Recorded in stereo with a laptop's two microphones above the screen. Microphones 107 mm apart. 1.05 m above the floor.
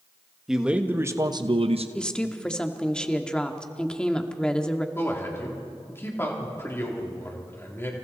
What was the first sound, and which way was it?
A man speaking, 5° right (ahead or behind).